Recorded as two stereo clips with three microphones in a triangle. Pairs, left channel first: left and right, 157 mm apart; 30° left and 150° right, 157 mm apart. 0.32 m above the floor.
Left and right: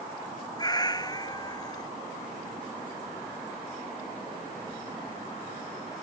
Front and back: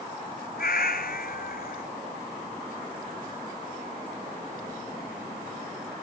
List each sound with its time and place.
0.6 s a cat meowing: 25° left